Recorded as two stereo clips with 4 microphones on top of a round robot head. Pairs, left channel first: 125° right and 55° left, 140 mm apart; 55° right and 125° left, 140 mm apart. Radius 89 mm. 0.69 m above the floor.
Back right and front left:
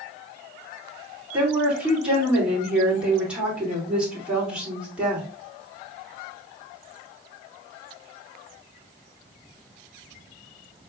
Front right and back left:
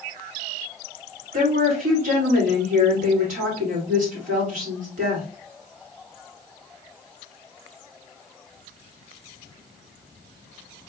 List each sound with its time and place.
1.3 s a woman speaking: 135° left, 2.5 m